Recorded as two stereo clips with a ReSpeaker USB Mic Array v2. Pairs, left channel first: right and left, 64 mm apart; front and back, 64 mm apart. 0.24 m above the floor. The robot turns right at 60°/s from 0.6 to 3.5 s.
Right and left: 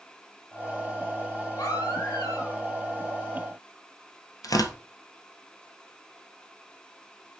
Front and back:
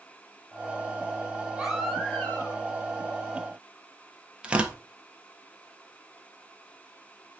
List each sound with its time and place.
1.6 s a baby crying: 100° right, 4.5 m; by 2.6 s 40° right, 4.5 m
4.4 s tearing paper: 105° right, 1.3 m